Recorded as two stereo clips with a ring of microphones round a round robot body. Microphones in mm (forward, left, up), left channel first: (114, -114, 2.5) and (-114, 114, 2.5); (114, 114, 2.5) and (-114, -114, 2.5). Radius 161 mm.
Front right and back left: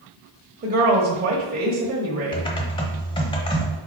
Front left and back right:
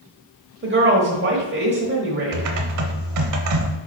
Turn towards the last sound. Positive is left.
turn(degrees=-115)